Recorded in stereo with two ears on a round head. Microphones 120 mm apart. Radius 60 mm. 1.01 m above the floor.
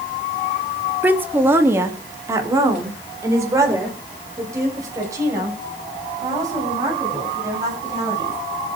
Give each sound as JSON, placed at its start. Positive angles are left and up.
{"t": 1.0, "sound": "a woman speaking", "side_deg": -15, "distance_m": 1.4}